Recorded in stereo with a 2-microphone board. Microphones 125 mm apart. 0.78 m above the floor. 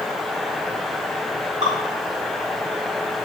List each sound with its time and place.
1.6 s dripping: 75° right (ahead or behind), 4 m